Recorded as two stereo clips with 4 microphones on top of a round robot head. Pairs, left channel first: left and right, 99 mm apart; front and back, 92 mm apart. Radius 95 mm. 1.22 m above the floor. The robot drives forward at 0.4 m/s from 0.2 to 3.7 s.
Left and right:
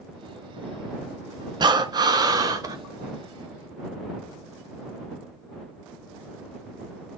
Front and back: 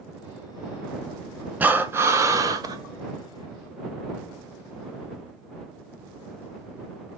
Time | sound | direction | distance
1.6 | breathing | 110° right | 0.9 m